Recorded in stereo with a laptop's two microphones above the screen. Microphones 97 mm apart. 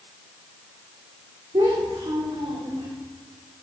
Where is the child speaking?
75° right (ahead or behind), 1.8 m; by 2.9 s 80° right, 3 m.